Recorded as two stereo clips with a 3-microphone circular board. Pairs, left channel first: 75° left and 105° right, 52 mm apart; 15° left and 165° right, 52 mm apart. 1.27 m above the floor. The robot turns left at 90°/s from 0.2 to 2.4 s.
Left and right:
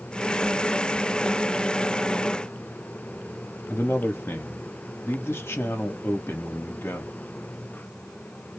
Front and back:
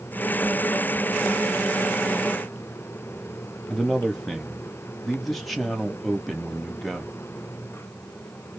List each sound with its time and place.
3.7 s a man speaking: 105° left, 1.1 m